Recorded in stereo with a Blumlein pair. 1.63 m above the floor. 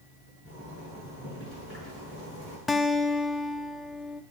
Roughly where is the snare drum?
No snare drum in this recording.